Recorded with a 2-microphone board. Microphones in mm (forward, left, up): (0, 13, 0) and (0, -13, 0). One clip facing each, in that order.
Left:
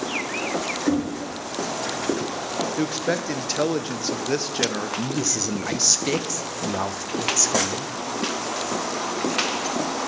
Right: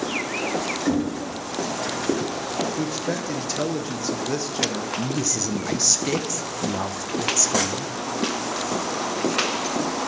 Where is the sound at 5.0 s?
15° left (ahead or behind), 0.5 m.